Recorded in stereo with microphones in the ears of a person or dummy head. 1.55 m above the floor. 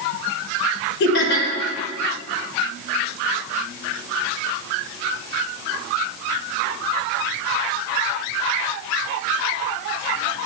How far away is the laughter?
About 1.0 m.